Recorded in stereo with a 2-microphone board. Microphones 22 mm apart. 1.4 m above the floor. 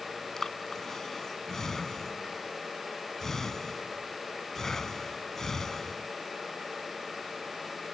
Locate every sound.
0.4 s breathing: 15° left (ahead or behind)